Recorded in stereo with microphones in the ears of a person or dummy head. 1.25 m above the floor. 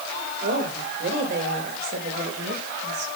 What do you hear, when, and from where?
0.4 s a woman speaking: 45° right (ahead or behind), 6 m; by 3.1 s 60° right (ahead or behind), 6.5 m